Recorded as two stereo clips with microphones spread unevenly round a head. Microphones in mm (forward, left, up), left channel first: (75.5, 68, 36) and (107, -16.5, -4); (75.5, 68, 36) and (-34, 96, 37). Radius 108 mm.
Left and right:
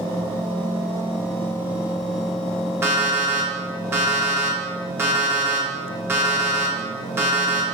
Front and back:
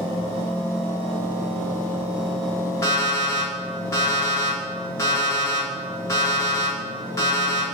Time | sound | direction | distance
2.8 | an alarm clock | 15° left | 0.9 m